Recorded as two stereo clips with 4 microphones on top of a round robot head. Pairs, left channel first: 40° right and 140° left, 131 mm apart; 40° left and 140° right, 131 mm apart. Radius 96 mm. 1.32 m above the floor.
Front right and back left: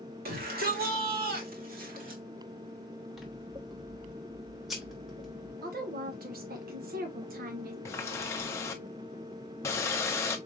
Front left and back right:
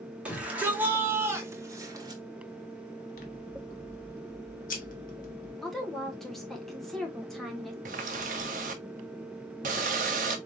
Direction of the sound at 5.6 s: 125° left.